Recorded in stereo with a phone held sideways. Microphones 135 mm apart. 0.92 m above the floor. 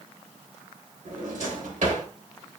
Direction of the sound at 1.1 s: 65° right (ahead or behind).